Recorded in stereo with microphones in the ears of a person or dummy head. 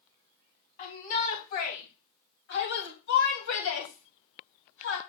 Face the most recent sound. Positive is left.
turn(degrees=80)